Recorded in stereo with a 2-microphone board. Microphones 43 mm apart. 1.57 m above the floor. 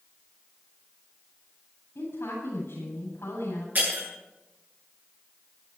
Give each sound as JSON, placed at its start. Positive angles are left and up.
{"t": 1.9, "sound": "a woman speaking", "side_deg": 75, "distance_m": 8.5}
{"t": 3.8, "sound": "breaking glass", "side_deg": -40, "distance_m": 9.0}